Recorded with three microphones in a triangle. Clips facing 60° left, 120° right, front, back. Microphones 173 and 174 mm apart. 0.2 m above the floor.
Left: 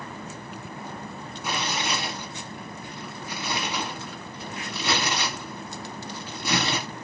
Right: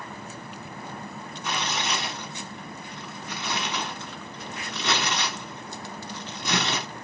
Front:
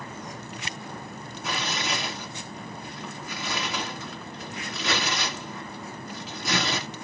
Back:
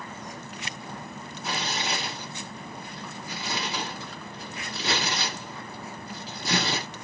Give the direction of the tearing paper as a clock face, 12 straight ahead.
7 o'clock.